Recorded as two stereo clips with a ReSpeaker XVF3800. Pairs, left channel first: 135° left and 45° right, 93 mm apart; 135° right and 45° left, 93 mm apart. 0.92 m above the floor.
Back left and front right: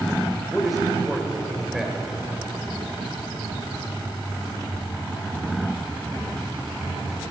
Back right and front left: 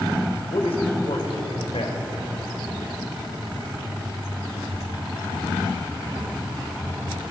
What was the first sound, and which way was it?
A man speaking, 135° right.